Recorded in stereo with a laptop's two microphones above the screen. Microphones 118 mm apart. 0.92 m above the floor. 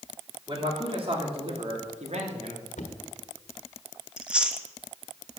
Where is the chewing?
10° right (ahead or behind), 0.9 m.